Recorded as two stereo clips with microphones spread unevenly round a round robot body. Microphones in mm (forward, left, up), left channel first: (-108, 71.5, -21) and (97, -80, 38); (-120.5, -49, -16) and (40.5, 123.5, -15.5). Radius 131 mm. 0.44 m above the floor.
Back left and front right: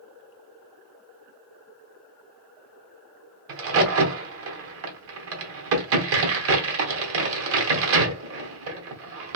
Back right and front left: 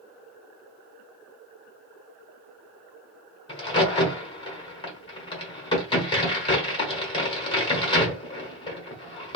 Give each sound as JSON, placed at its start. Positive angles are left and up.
{"t": 3.5, "sound": "a crack", "azimuth_deg": -70, "distance_m": 1.0}